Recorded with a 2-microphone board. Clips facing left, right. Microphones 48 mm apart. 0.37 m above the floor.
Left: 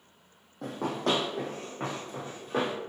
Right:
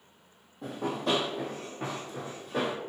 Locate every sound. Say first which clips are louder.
0.6 s running footsteps: left 1 dB; 70° left (ahead or behind), 0.9 m; by 2.8 s 40° left (ahead or behind), 1.5 m